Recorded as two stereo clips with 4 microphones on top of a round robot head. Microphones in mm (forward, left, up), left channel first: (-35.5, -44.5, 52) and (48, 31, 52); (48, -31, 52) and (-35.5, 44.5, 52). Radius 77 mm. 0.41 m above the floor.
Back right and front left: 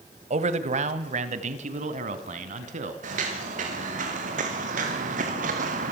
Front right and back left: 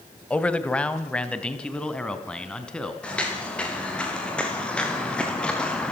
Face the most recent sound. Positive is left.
turn(degrees=40)